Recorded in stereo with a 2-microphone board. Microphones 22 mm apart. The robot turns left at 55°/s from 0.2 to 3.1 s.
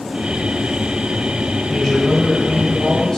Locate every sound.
1.7 s a man speaking: 175° right, 1.0 m; by 3.2 s 105° left, 1.0 m